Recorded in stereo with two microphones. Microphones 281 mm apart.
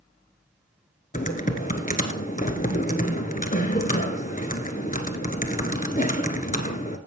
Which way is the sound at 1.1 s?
30° left (ahead or behind).